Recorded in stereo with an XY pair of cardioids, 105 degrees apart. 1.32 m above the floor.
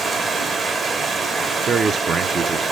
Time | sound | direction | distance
0.0 | running water | 40° right | 2 m
1.7 | a man speaking | 40° right | 0.8 m